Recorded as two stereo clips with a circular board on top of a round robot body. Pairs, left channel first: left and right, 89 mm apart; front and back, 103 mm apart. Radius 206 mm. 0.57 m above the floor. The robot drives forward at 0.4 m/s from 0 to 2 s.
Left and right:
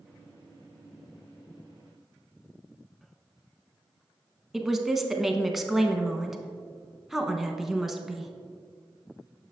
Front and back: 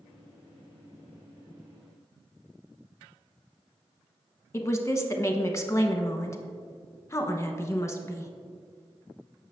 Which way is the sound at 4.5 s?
5° right.